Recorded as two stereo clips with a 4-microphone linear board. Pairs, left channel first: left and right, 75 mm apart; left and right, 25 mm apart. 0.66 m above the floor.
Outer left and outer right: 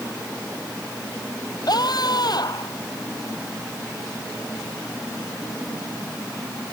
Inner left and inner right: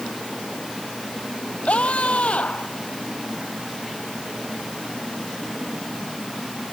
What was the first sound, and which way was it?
A scream, 60° left (ahead or behind).